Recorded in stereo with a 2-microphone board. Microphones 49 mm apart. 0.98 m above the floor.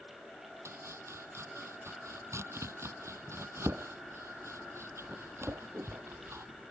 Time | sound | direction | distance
0.7 | chopping | 65° right (ahead or behind) | ?